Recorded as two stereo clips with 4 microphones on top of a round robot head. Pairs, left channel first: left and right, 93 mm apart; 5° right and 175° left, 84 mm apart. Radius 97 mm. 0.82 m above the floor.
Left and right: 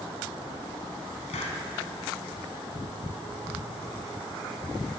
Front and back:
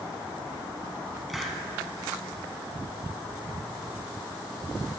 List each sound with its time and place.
1.3 s a hiss: 85° left, 1.1 m